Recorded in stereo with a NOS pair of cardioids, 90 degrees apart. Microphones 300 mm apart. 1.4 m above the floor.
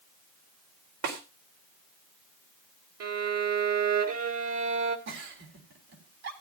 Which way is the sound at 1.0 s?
70° right.